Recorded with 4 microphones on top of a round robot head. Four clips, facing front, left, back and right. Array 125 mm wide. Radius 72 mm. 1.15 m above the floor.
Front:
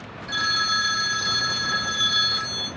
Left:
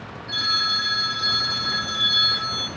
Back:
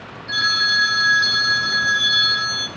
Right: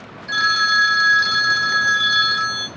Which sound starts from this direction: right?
A phone ringing, at 0.3 s.